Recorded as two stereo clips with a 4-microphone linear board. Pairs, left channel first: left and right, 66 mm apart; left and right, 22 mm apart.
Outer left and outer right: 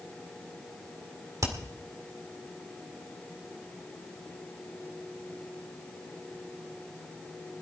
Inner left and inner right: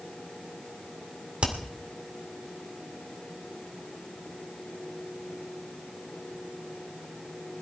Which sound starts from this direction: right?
Hammering, at 1.4 s.